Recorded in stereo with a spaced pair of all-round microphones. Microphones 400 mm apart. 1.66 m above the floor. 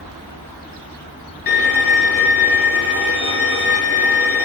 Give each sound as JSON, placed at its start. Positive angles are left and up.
{"t": 1.5, "sound": "a violin", "side_deg": 35, "distance_m": 1.0}